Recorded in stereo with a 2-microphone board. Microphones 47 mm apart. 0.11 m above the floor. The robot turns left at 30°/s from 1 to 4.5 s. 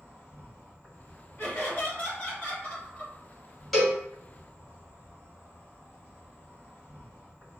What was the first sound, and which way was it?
An insect, 140° left.